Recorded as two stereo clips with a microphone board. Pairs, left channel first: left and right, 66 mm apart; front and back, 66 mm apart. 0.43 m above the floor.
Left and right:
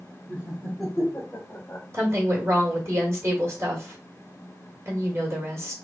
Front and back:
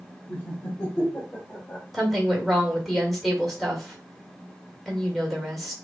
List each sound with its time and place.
0.3 s laughter: 40° right, 1.6 m; by 1.8 s 50° left, 2 m
1.9 s a woman speaking: 90° right, 1.5 m